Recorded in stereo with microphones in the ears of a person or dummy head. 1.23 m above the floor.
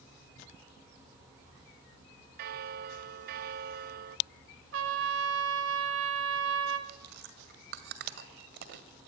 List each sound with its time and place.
2.4 s a bell: 55° right (ahead or behind), 0.7 m
4.7 s a trumpet: 80° right, 2.5 m
6.9 s chewing: 60° right (ahead or behind), 1.8 m